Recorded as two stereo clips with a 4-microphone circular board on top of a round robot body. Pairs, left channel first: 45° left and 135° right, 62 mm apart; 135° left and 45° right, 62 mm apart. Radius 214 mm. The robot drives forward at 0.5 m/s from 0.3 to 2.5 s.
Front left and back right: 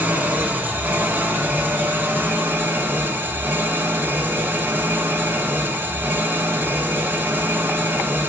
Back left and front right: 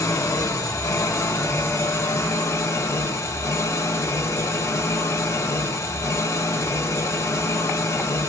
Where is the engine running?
165° left, 2 m; by 8.3 s 170° left, 3 m.